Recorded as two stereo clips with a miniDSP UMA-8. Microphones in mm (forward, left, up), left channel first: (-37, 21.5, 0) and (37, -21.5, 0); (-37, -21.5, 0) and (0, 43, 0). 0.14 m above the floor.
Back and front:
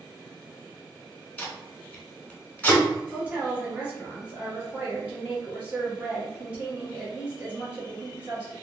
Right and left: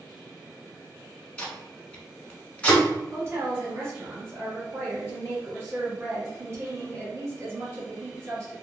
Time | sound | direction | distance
1.4 | tape being pulled | 170° right | 0.8 m
3.1 | a woman speaking | 30° left | 1.8 m